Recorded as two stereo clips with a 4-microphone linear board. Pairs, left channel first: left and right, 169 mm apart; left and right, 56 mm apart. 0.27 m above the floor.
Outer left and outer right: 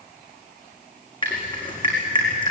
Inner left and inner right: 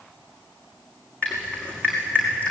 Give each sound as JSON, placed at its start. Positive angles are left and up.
{"t": 1.2, "sound": "dripping", "side_deg": 30, "distance_m": 5.5}